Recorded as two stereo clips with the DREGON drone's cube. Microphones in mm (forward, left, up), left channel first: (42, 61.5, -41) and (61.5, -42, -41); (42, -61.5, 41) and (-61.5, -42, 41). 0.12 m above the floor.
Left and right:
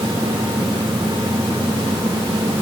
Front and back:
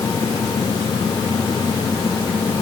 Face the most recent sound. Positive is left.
No sound to turn to.